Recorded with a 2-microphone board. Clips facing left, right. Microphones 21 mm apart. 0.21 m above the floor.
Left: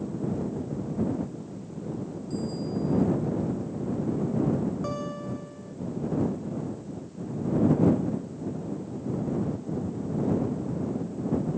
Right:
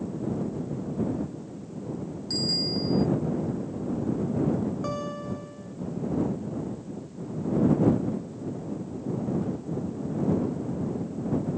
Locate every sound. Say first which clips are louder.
2.3 s a bicycle bell: right 6 dB; 75° right (ahead or behind)
4.8 s a guitar: right 1 dB; 10° right (ahead or behind)